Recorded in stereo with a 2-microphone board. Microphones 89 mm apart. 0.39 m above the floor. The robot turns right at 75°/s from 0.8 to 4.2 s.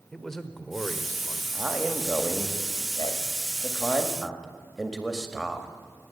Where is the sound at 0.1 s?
5° left, 1.0 m; by 1.4 s 55° left, 1.0 m.